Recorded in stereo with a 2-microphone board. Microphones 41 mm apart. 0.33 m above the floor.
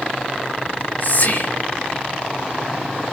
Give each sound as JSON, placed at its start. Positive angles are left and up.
{"t": 0.7, "sound": "whispering", "side_deg": 55, "distance_m": 6.5}